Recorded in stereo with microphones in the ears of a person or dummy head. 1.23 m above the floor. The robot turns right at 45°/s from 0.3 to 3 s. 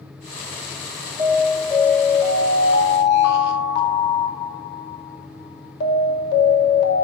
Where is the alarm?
25° right, 2.5 m; by 7.0 s 60° left, 2.5 m.